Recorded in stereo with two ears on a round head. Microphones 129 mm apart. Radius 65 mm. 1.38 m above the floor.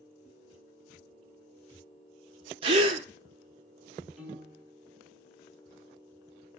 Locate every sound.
2.6 s a gasp: 35° right (ahead or behind), 0.6 m
4.2 s a piano: centre (ahead or behind), 1.1 m